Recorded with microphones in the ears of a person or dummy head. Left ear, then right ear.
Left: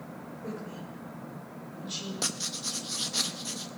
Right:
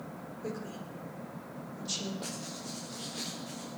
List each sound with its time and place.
0.4 s a woman speaking: 85° right, 5 m
2.2 s writing: 50° left (ahead or behind), 1.0 m